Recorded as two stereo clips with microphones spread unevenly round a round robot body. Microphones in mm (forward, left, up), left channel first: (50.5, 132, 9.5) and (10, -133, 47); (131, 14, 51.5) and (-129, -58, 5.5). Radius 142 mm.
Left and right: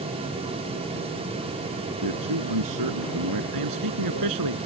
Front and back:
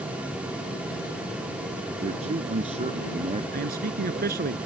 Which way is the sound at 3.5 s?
110° right.